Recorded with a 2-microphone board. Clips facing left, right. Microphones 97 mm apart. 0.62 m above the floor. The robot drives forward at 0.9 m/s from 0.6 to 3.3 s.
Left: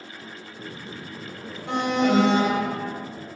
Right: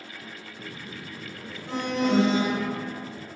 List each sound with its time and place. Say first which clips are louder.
1.7 s an alarm: left 4 dB; 75° left (ahead or behind), 3.5 m; by 3.1 s 60° left (ahead or behind), 4 m